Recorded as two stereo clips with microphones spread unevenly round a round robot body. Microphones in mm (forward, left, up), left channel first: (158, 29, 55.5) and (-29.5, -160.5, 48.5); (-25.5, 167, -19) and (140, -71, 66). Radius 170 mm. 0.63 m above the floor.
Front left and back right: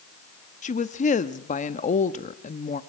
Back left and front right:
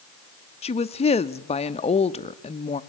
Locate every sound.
0.6 s a woman speaking: 95° left, 0.6 m